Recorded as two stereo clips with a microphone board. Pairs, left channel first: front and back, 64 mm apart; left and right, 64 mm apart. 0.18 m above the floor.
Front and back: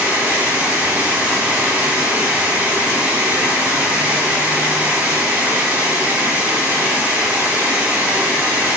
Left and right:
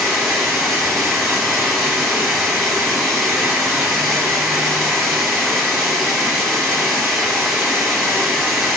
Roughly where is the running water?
Behind.